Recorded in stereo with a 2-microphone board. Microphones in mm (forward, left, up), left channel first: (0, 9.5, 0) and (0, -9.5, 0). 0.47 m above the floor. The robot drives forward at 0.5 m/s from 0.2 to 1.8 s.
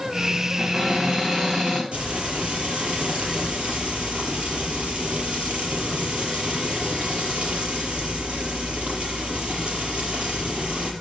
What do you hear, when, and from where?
0.6 s a cupboard door: 35° right (ahead or behind), 4.5 m; by 1.8 s 30° right (ahead or behind), 5 m
1.9 s frying: 80° right, 5.5 m